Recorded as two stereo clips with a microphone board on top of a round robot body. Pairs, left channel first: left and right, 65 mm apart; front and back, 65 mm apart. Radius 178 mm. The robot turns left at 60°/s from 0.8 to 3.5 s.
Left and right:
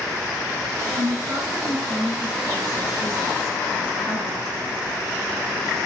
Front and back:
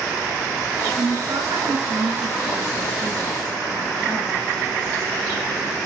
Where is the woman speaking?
130° right, 8 m; by 4.4 s 75° left, 8 m.